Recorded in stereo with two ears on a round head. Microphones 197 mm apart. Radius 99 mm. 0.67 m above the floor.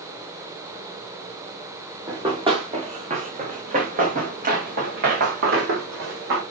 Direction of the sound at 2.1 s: 20° right (ahead or behind).